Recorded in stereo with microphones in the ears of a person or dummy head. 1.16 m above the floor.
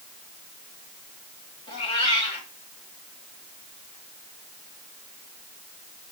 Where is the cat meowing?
35° left (ahead or behind), 1.9 m.